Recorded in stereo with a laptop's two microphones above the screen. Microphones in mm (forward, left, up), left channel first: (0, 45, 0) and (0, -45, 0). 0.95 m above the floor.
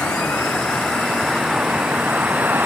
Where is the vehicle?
15° left (ahead or behind); by 2.7 s 20° right (ahead or behind).